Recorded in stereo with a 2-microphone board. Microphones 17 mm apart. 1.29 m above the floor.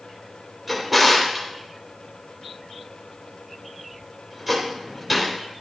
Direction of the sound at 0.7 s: 10° right (ahead or behind).